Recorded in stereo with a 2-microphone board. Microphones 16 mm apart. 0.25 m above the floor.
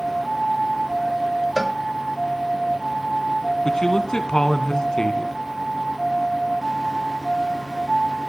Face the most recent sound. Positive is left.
turn(degrees=60)  # may be behind; listen again after turning